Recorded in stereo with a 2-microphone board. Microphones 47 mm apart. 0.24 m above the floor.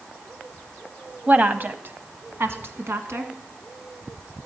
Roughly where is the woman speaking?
Right.